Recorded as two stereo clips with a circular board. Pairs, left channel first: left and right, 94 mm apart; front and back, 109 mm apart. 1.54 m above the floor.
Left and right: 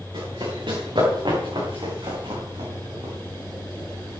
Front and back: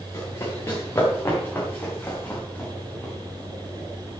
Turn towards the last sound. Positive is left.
turn(degrees=-80)